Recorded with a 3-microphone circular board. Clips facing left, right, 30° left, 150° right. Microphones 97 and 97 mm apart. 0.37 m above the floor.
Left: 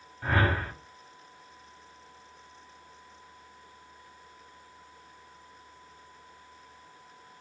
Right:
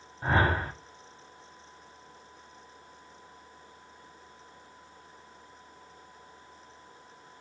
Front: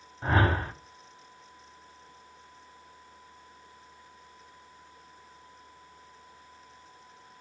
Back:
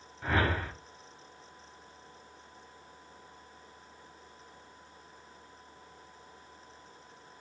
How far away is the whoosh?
About 0.8 m.